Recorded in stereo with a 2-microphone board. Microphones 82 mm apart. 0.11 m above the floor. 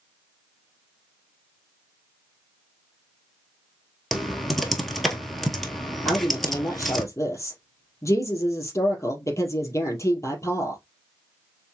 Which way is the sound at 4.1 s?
Centre (ahead or behind).